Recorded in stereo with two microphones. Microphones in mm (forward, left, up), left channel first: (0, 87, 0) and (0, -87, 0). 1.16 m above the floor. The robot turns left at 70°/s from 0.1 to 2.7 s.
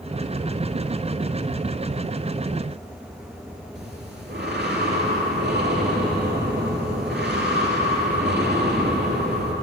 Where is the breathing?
80° right, 2.5 m.